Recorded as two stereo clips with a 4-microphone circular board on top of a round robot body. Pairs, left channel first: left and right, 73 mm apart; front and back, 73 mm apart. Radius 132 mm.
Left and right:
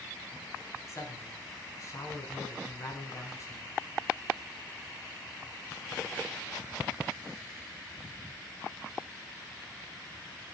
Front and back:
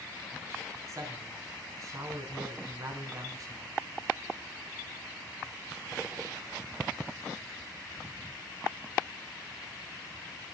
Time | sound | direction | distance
0.9 | a man speaking | 135° left | 6 m